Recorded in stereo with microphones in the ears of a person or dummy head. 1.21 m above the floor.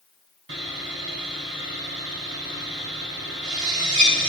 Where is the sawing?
60° right (ahead or behind), 1.4 m.